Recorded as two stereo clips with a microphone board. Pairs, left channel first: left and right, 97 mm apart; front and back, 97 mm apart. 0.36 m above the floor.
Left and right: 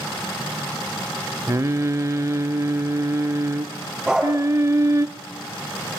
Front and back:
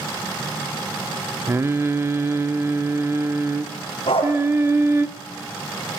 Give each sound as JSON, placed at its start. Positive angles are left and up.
{"t": 1.5, "sound": "singing", "azimuth_deg": -135, "distance_m": 0.9}
{"t": 4.1, "sound": "a dog barking", "azimuth_deg": -5, "distance_m": 9.0}